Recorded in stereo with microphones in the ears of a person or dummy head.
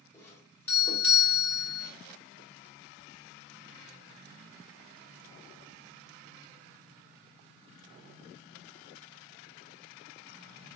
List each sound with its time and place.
0.1 s a doorbell: 10° left (ahead or behind), 3 m